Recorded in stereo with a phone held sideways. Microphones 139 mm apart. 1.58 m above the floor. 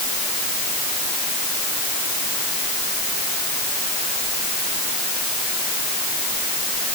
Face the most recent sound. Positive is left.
No sound to turn to.